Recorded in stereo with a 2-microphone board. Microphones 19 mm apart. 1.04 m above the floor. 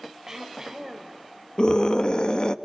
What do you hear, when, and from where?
0.3 s throat clearing: 25° right (ahead or behind), 4 m
1.6 s a scream: 40° left (ahead or behind), 1.6 m